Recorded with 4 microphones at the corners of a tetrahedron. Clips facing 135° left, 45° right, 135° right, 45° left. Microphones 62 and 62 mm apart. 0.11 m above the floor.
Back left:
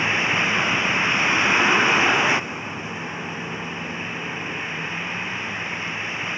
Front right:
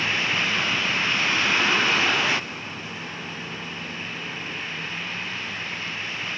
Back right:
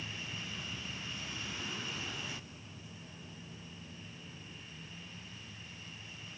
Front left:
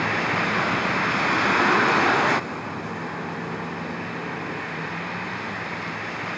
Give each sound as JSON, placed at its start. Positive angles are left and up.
{"t": 0.0, "sound": "a vehicle", "azimuth_deg": 65}